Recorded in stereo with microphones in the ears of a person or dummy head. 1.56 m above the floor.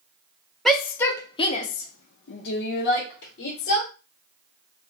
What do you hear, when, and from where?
0.7 s a shout: 5° left (ahead or behind), 0.7 m; by 3.9 s 55° left (ahead or behind), 1.3 m